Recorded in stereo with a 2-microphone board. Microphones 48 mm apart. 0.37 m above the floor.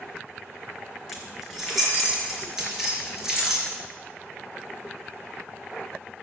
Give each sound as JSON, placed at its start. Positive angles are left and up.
{"t": 1.1, "sound": "keys jangling", "side_deg": 5, "distance_m": 4.5}